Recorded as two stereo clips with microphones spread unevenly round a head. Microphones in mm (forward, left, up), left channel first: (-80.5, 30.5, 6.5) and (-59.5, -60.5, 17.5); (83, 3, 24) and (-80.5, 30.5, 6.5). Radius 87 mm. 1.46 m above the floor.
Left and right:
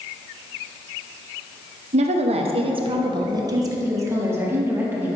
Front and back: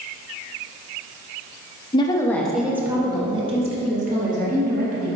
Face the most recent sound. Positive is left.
turn(degrees=-150)